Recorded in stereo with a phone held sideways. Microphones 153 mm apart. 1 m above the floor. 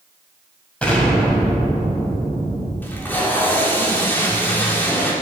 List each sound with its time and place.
0.8 s an explosion: 10° left (ahead or behind), 4 m
2.8 s tape being pulled: 15° left (ahead or behind), 3.5 m